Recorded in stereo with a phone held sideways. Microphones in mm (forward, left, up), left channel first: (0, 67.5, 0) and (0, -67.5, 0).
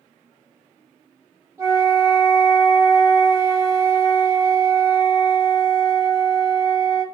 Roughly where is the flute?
Right.